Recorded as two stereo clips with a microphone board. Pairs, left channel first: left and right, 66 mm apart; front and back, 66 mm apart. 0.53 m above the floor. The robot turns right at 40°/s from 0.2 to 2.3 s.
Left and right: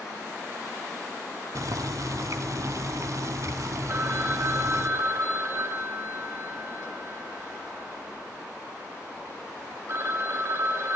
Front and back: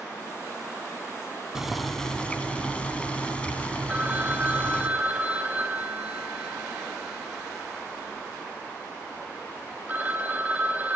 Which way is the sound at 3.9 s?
120° right.